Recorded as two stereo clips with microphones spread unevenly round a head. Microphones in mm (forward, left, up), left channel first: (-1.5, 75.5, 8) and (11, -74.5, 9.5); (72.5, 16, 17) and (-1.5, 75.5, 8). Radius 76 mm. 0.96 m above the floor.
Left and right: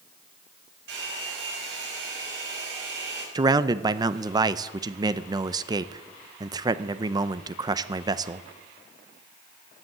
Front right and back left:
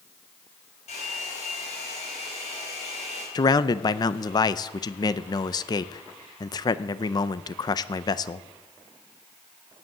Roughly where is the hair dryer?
Right.